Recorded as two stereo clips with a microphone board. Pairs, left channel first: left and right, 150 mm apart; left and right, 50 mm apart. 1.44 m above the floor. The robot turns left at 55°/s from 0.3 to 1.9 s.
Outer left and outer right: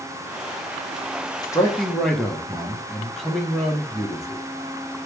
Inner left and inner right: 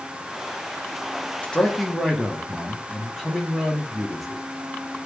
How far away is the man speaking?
About 0.9 m.